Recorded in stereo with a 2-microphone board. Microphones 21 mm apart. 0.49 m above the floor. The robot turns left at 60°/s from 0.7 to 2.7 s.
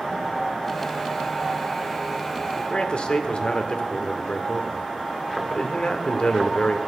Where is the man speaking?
45° left (ahead or behind), 1.1 m; by 6.8 s 50° left (ahead or behind), 1.1 m.